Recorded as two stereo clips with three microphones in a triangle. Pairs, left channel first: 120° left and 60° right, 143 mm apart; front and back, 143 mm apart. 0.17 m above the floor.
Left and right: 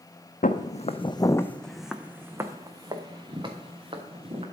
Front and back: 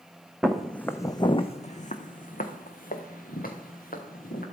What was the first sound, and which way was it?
Footsteps, 95° left.